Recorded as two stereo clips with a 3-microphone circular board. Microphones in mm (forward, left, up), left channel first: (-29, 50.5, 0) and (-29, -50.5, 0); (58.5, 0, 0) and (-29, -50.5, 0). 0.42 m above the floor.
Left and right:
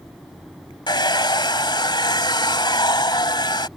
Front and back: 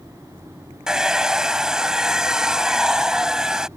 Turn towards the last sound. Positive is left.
turn(degrees=125)